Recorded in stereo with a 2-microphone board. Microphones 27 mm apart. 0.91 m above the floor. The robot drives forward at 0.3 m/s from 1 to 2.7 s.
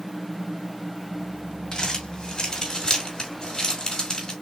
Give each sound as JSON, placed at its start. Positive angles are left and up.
{"t": 1.7, "sound": "crumpling", "side_deg": 30, "distance_m": 1.9}